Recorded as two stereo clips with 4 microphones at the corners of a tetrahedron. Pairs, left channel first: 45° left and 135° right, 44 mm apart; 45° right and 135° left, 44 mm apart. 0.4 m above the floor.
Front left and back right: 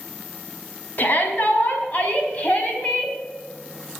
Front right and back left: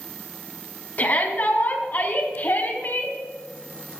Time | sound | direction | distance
1.0 | a shout | straight ahead | 4 m